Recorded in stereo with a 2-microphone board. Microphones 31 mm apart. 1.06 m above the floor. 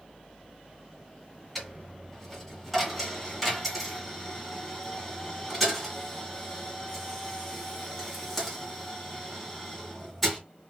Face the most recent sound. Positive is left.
turn(degrees=0)  # may be behind; listen again after turning